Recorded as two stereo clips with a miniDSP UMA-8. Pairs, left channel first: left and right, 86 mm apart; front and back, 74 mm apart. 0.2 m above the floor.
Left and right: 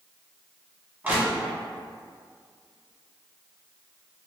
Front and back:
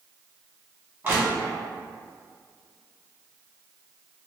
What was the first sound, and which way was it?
Crushing, 145° right.